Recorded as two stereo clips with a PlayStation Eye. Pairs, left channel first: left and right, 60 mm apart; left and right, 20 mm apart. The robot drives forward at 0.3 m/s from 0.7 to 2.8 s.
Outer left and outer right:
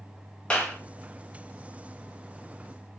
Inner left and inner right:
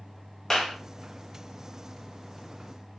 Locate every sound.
0.5 s a clap: 20° left (ahead or behind), 1.1 m